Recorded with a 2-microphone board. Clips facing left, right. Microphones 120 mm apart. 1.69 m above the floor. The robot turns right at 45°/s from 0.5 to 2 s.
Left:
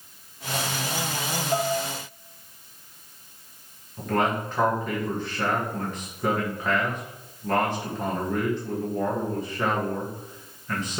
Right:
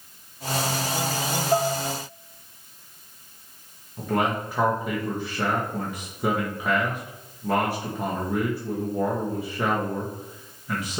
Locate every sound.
1.5 s dishes clattering: 40° right (ahead or behind), 1.0 m; by 1.8 s 45° right (ahead or behind), 1.0 m
4.0 s a man speaking: 10° right (ahead or behind), 2 m